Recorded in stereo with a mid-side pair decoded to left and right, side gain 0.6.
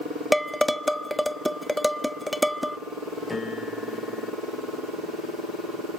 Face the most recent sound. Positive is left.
turn(degrees=15)